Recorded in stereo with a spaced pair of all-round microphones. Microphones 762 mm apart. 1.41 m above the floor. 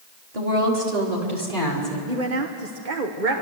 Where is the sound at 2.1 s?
80° right, 1.2 m.